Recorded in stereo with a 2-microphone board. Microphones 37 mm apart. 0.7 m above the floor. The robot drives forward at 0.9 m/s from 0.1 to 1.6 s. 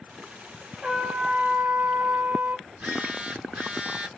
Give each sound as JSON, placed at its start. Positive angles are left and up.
{"t": 0.8, "sound": "a trumpet", "side_deg": -30, "distance_m": 1.1}
{"t": 2.7, "sound": "a phone buzzing", "side_deg": -30, "distance_m": 3.0}